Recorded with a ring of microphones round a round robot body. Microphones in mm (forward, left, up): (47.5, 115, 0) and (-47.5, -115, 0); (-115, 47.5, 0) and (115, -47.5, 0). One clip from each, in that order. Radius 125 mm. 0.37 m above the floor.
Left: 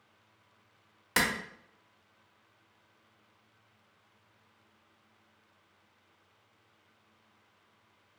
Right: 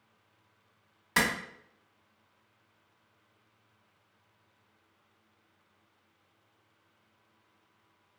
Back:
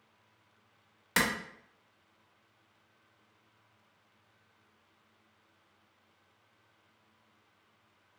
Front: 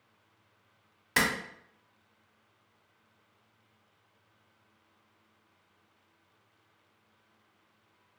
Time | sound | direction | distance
1.2 | a clap | 115° left | 0.7 m